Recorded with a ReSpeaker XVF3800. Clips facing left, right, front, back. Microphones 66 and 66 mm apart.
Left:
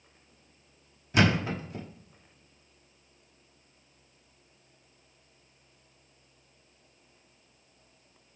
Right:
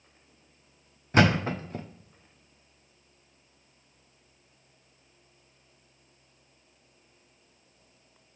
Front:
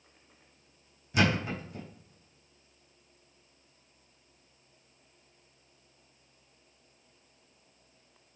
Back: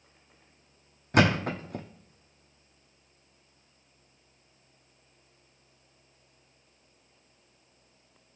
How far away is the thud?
About 0.8 m.